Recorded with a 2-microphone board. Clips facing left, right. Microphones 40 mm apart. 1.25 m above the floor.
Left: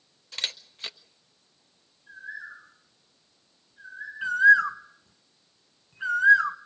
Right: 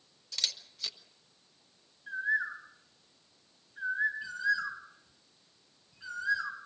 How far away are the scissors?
I don't hear scissors.